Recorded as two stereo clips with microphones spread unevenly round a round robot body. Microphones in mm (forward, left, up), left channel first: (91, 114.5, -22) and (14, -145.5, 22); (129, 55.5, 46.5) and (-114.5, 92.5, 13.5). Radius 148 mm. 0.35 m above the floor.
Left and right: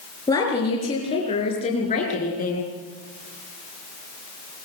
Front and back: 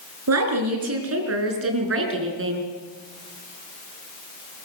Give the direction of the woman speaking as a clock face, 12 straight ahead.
7 o'clock.